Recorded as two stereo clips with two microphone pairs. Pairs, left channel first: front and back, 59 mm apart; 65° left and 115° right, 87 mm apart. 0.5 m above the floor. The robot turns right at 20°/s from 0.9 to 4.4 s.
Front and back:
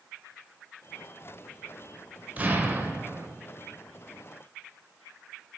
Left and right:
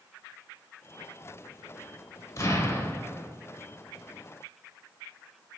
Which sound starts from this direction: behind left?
An explosion, at 2.4 s.